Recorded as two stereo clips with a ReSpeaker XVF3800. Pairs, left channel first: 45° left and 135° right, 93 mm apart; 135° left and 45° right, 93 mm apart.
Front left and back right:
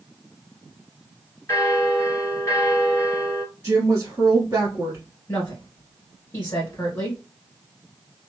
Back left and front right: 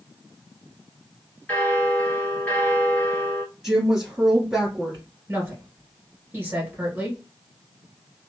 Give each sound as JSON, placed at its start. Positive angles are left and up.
{"t": 1.5, "sound": "a bell", "azimuth_deg": 75, "distance_m": 1.2}
{"t": 3.6, "sound": "a woman speaking", "azimuth_deg": -125, "distance_m": 1.6}
{"t": 5.3, "sound": "a woman speaking", "azimuth_deg": 0, "distance_m": 1.9}